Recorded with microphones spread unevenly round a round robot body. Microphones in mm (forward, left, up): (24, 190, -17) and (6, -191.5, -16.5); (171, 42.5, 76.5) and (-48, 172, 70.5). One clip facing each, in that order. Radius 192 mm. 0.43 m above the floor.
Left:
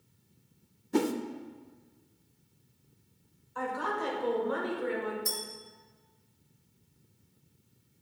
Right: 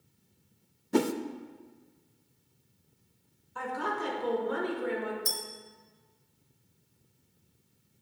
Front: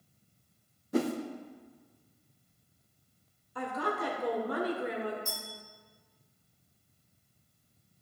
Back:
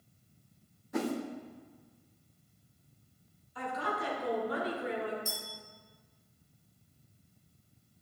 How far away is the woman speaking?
About 1.8 m.